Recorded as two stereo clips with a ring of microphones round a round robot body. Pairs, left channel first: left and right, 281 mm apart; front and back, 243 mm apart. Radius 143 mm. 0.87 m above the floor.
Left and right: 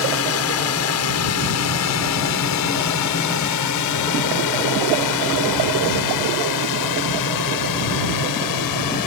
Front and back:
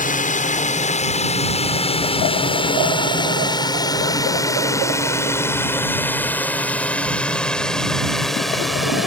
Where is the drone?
55° left; by 9.1 s 90° left.